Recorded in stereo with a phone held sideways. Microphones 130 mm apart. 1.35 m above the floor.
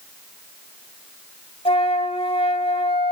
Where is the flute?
45° left (ahead or behind), 1.4 m.